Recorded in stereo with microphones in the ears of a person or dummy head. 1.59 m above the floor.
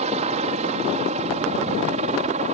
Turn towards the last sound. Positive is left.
turn(degrees=-45)  # may be behind; listen again after turning